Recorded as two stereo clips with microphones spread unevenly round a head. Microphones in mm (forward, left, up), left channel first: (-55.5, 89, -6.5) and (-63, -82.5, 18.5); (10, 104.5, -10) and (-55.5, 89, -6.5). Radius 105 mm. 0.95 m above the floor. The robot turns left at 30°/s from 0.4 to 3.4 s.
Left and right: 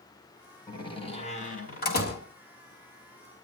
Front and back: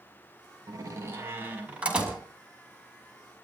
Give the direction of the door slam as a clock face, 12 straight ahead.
7 o'clock.